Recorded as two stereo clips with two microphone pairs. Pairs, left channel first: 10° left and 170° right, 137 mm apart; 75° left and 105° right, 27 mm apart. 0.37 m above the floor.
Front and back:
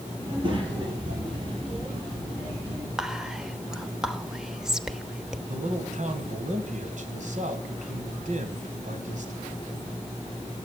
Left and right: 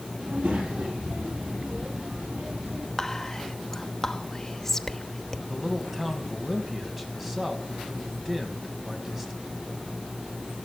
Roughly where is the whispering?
Behind left.